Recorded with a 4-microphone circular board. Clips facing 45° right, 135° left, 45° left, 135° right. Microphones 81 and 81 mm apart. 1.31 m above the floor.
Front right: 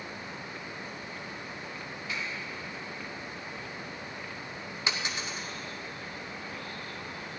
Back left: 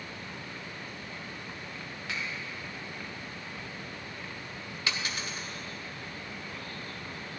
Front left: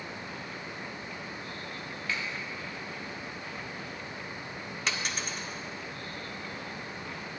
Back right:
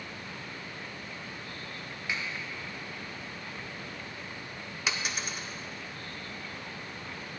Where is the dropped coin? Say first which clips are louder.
Front right 1 dB, even; 60° right, 0.9 m.